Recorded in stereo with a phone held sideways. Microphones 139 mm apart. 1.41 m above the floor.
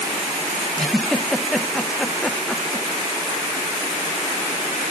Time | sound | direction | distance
0.8 | a giggle | centre (ahead or behind) | 0.6 m